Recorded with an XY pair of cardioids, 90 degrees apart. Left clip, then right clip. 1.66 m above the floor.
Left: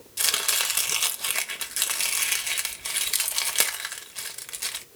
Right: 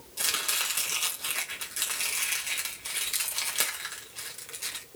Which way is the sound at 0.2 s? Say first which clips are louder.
Left 4 dB; 55° left.